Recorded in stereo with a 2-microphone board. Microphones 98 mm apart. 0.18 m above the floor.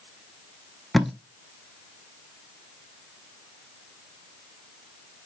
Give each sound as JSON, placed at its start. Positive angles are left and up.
{"t": 0.9, "sound": "tape being pulled", "side_deg": 0, "distance_m": 0.6}